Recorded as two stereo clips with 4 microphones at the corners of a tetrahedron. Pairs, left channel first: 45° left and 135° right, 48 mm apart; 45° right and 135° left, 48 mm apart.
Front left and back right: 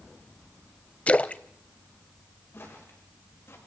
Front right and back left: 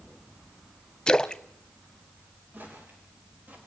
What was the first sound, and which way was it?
A splash, 15° left.